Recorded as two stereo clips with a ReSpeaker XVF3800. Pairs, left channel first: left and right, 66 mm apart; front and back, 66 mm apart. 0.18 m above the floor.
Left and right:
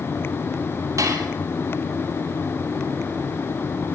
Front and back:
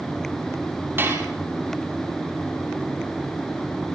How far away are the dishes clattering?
About 4 m.